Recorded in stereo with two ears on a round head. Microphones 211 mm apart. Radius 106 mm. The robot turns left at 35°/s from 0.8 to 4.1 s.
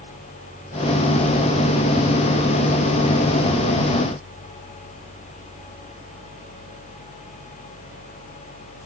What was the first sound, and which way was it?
Only background noise.